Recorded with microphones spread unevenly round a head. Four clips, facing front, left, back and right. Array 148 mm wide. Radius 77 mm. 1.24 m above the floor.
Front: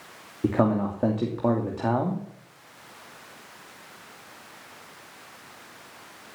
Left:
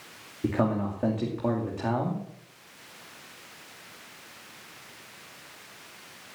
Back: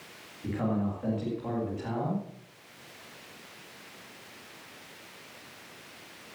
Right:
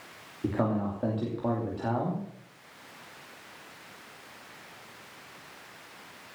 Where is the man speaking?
10° left, 2.5 m.